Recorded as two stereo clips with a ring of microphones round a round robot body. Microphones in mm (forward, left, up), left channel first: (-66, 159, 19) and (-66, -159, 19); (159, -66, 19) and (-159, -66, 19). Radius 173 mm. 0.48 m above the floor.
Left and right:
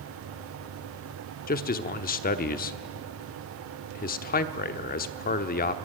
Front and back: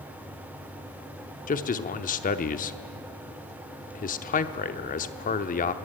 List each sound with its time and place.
1.5 s a man speaking: 45° left, 0.8 m